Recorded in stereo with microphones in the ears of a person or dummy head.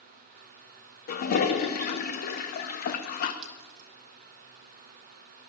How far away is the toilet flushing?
About 0.7 m.